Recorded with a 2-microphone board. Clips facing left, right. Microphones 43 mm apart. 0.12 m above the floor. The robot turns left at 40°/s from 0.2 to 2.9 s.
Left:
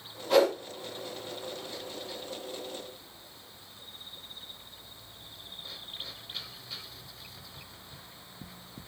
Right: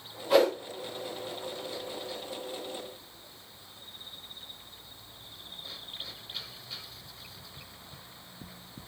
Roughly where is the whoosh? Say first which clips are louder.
Even; centre.